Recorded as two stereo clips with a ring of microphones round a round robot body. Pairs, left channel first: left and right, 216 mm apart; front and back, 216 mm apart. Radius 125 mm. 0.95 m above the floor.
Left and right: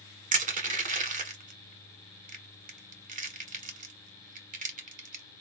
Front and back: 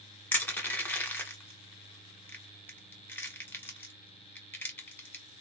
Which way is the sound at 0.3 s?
75° right.